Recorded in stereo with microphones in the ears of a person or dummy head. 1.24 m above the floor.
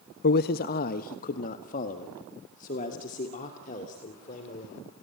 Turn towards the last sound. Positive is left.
turn(degrees=45)  # may be behind; listen again after turning